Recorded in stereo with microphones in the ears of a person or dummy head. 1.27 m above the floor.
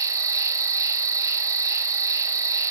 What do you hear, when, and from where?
0.0 s an insect: 10° right (ahead or behind), 0.9 m